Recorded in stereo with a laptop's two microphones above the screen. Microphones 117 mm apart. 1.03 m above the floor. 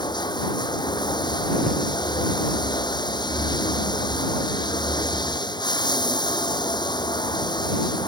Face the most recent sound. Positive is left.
turn(degrees=40)  # may be behind; listen again after turning